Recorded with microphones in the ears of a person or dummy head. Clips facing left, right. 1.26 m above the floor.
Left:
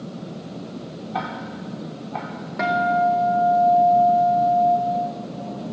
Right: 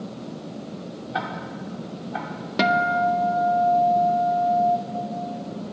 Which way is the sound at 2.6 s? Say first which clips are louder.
Left 1 dB; 40° right (ahead or behind).